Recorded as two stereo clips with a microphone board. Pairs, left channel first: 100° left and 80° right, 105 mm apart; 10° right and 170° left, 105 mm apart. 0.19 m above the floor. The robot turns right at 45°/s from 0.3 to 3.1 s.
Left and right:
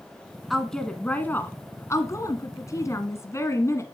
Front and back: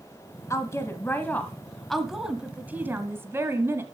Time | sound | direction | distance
0.5 | a woman speaking | 10° left | 1.1 m